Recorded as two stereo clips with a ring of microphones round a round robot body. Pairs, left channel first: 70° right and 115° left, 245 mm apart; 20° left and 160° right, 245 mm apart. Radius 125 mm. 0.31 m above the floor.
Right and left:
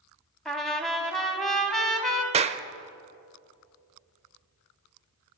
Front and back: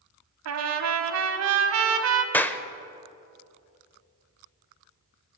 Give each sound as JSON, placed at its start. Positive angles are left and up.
{"t": 0.5, "sound": "a trumpet", "azimuth_deg": -155, "distance_m": 1.4}
{"t": 2.3, "sound": "a clap", "azimuth_deg": 95, "distance_m": 0.7}